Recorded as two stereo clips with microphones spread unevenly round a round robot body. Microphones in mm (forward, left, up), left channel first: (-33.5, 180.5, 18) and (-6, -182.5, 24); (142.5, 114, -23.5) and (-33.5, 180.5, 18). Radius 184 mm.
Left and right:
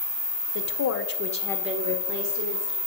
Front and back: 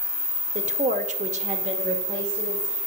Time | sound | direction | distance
0.6 | a woman speaking | 105° left | 1.4 m